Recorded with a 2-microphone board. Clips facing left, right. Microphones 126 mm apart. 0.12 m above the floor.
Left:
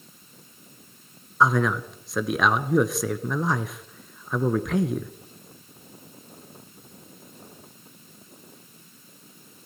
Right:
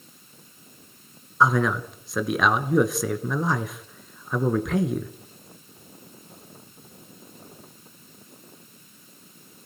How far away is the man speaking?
About 1.3 m.